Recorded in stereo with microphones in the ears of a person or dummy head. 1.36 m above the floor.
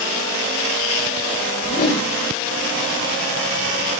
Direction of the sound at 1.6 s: 50° left (ahead or behind).